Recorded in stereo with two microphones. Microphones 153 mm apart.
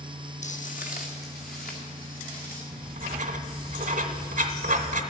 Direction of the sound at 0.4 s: 55° left (ahead or behind).